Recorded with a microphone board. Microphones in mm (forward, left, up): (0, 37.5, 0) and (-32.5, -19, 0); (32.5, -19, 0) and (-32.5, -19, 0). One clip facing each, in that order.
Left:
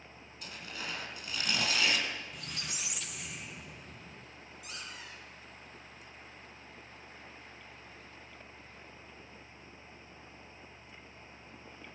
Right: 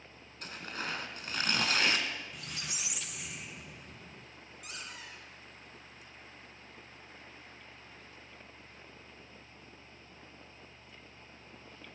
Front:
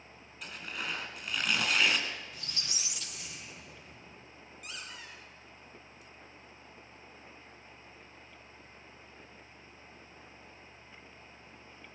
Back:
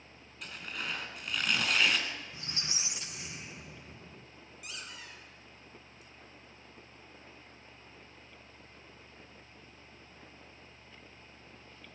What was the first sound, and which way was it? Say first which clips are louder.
Tearing paper: right 3 dB, front 1 dB; 85° right.